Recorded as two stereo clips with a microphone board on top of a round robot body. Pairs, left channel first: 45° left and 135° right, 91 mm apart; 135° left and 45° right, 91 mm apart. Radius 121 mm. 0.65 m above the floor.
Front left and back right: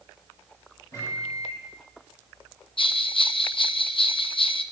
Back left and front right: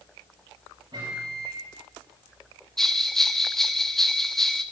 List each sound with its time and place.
0.9 s a microwave: 10° right, 7.5 m
2.8 s a bell: 50° left, 0.7 m